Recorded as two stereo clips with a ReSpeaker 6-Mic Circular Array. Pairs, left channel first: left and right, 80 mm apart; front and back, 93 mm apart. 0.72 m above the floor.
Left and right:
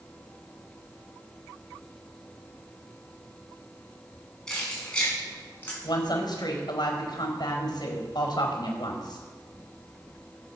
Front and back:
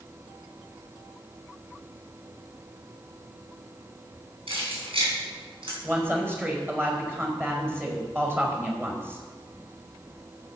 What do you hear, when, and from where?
4.5 s keys jangling: 170° left, 5 m; by 5.7 s 155° left, 5.5 m
5.8 s a woman speaking: 115° left, 4.5 m